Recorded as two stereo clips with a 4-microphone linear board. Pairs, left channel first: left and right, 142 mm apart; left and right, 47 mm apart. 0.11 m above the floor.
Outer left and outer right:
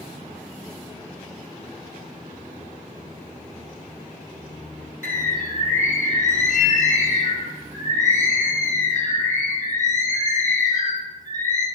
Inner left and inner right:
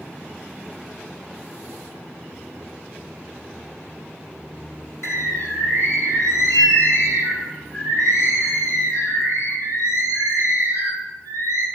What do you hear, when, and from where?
5.0 s a bird: 60° left (ahead or behind), 1.2 m